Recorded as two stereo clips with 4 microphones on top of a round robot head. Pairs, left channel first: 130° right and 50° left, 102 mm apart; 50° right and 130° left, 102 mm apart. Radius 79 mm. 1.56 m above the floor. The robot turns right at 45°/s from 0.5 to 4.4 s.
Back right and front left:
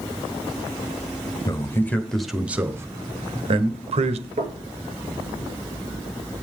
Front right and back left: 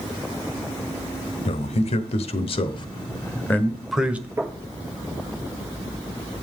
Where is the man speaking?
70° right, 1.0 m; by 4.3 s 55° left, 1.0 m.